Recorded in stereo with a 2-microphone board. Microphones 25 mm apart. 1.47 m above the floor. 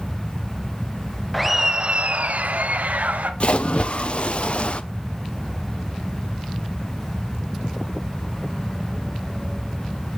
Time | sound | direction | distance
1.3 | laughter | 5° left (ahead or behind) | 0.5 m
3.4 | a splash | 50° left (ahead or behind) | 0.6 m